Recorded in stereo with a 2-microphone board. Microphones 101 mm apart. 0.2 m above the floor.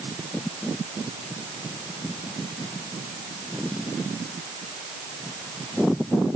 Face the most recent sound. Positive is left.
No sound to turn to.